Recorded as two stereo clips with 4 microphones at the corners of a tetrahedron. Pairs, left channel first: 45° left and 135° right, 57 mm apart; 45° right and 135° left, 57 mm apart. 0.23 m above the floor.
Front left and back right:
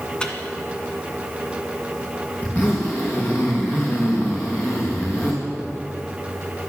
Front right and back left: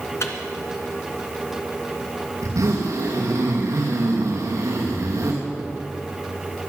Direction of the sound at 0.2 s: 30° right.